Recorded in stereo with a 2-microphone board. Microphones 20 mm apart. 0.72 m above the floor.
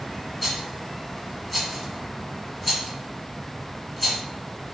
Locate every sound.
0.4 s a rattle: 5° left (ahead or behind), 1.0 m